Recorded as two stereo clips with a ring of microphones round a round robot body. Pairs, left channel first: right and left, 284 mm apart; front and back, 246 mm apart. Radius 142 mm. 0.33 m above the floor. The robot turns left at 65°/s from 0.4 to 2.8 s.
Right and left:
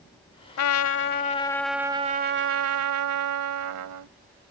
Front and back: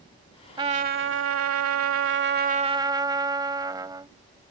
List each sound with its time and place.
0.6 s a trumpet: 105° right; by 4.1 s 110° left